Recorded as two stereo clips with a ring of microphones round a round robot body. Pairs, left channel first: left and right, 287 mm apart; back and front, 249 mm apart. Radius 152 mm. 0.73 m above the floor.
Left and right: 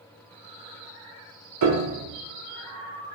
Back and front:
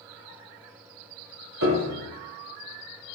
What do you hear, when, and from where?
1.6 s a piano: 50° right, 0.8 m